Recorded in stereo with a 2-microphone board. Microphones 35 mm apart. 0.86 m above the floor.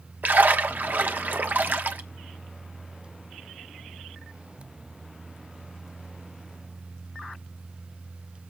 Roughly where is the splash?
Right.